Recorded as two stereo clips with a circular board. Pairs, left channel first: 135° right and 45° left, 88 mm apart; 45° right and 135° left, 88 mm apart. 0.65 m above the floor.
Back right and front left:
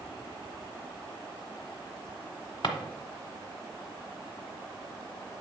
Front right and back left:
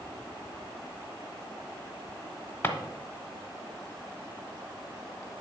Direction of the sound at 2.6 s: 110° right.